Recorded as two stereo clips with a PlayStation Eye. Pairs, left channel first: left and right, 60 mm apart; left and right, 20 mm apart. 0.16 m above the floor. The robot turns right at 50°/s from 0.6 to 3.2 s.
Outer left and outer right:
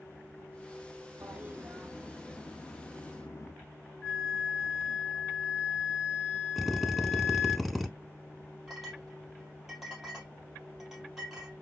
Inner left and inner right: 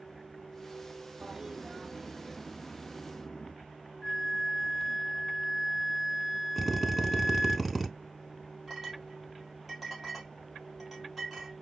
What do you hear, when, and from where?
1.2 s a toilet flushing: 35° right, 0.5 m; by 3.5 s 65° left, 0.5 m
4.0 s a flute: centre (ahead or behind), 0.9 m
6.6 s a drill: centre (ahead or behind), 0.6 m
8.7 s a clink: 10° right (ahead or behind), 2 m